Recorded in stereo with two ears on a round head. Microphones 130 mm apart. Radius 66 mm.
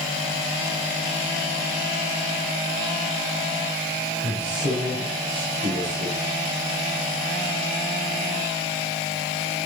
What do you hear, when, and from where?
4.2 s a man speaking: 50° right (ahead or behind), 7 m